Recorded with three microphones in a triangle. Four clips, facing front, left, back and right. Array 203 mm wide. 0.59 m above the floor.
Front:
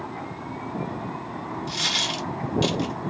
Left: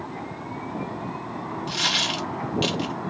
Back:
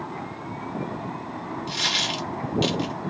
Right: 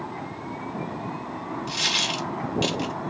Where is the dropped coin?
125° left, 0.8 m.